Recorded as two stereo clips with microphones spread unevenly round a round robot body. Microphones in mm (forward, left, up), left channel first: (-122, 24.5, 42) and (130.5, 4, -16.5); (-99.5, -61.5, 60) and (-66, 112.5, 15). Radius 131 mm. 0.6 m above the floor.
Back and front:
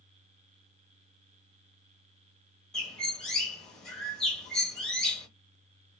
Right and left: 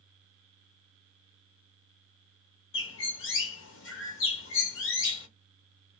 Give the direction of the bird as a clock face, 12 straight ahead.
3 o'clock.